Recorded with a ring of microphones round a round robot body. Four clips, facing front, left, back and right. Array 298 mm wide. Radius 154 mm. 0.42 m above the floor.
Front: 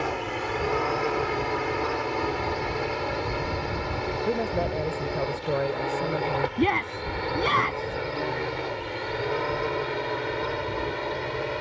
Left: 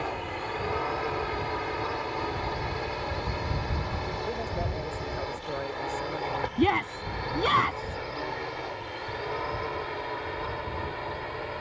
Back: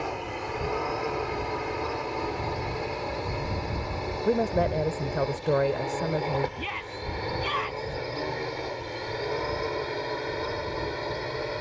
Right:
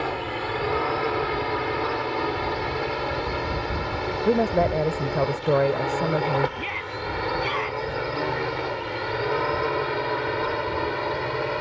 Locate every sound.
0.0 s a drone: 55° right; by 11.6 s 80° right
4.2 s a woman speaking: 100° right
6.6 s a shout: 40° left